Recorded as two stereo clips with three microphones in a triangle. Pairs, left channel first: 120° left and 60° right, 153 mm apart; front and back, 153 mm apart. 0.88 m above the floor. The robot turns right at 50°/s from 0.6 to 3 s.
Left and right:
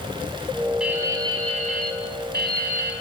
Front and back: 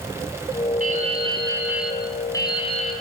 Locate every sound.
0.8 s dripping: 145° right, 6 m; by 2.9 s 40° right, 6 m